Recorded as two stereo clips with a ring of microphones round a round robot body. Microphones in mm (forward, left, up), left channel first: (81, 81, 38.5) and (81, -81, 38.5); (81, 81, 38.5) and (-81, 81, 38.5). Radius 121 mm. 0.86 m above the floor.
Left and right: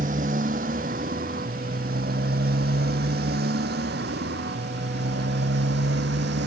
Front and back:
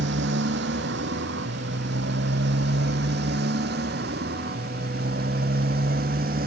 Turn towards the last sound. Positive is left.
turn(degrees=-130)